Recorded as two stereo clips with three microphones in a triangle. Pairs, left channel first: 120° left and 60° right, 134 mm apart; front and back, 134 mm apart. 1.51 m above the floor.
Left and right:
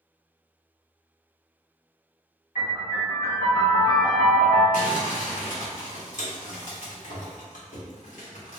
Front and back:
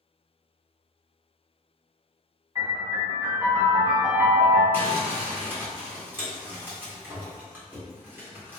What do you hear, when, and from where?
2.5 s a piano: 120° left, 1.8 m
4.7 s crumpling: 105° left, 1.0 m